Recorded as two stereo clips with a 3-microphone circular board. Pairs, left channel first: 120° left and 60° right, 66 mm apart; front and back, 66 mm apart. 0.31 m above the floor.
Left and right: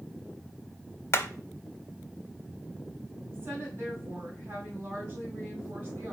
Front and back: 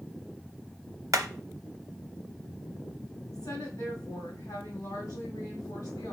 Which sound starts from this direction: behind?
Hammering, at 1.1 s.